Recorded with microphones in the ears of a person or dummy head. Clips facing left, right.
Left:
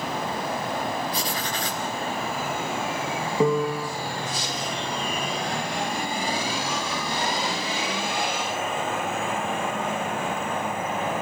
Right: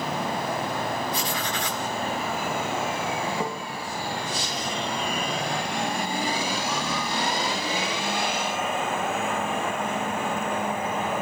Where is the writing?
35° left (ahead or behind), 2.5 m.